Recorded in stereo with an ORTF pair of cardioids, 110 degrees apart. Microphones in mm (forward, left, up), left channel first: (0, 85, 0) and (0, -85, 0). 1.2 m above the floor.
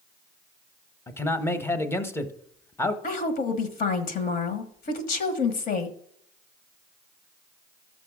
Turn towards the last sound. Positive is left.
turn(degrees=55)